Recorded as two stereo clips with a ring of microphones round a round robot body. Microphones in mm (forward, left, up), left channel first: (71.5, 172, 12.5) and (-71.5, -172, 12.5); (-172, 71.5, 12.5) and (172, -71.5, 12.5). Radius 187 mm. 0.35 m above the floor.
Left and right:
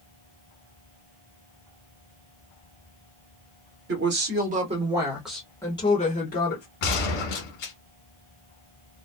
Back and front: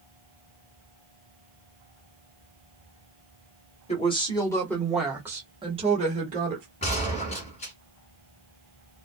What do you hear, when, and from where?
3.9 s a woman speaking: 140° right, 1.2 m; by 6.7 s 25° left, 1.2 m
6.8 s a gunshot: 85° left, 1.3 m